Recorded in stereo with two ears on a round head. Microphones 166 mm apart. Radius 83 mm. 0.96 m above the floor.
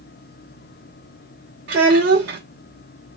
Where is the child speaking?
70° right (ahead or behind), 1.1 m.